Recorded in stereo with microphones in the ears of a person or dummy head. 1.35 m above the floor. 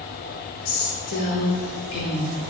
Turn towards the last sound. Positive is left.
turn(degrees=25)  # may be behind; listen again after turning